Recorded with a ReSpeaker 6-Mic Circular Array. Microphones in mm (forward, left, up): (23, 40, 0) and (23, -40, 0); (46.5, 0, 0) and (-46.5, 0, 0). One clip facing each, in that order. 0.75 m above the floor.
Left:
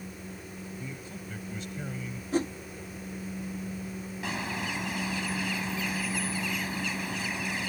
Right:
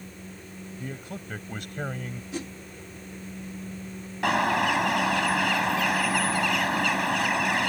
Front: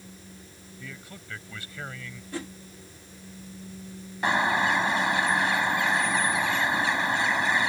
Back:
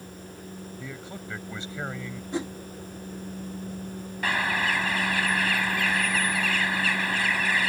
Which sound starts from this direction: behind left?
A whoosh, at 2.3 s.